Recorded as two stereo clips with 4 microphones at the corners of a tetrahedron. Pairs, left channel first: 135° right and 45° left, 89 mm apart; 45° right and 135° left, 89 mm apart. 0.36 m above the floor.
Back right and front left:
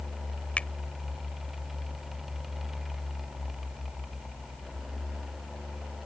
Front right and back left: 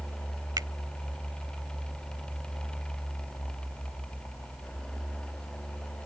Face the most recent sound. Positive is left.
turn(degrees=155)